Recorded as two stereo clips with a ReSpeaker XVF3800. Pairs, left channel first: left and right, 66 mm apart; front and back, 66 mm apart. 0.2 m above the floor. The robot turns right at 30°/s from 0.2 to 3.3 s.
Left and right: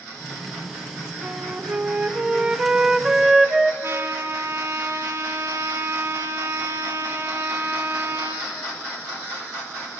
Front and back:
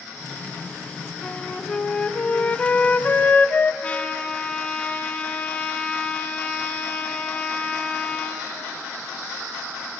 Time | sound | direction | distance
1.2 | a flute | 75° right | 0.7 m
3.8 | a trumpet | 65° right | 1.7 m